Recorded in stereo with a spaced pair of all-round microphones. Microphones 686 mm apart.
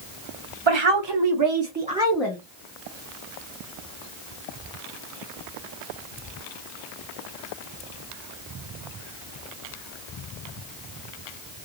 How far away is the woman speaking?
About 1.0 m.